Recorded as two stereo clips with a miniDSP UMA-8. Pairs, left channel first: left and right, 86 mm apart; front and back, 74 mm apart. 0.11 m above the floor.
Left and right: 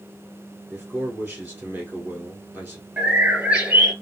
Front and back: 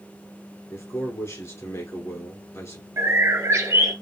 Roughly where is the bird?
Behind right.